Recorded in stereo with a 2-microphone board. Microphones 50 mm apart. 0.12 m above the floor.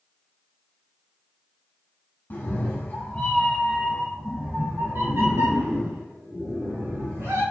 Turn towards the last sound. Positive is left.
turn(degrees=-70)  # may be behind; listen again after turning